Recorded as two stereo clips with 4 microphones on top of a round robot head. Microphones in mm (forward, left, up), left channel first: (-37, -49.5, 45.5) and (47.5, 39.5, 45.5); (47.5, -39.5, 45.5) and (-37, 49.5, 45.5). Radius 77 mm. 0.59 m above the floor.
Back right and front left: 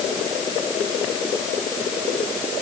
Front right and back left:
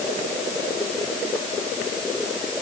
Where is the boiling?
I don't hear boiling.